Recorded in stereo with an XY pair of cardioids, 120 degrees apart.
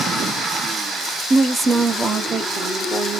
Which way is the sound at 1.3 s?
25° right.